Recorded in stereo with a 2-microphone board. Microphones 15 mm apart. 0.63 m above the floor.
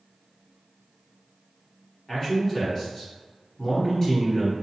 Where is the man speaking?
25° left (ahead or behind), 1.3 m.